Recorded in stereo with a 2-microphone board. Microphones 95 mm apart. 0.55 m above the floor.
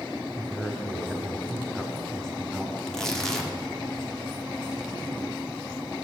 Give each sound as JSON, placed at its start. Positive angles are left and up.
{"t": 0.3, "sound": "a man speaking", "side_deg": 5, "distance_m": 1.5}
{"t": 2.8, "sound": "tearing paper", "side_deg": 5, "distance_m": 1.2}